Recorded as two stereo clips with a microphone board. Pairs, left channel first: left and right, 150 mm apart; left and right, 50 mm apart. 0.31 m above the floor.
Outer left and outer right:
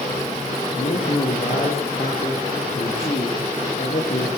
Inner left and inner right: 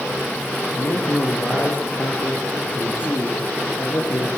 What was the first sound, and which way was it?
A man speaking, 55° left (ahead or behind).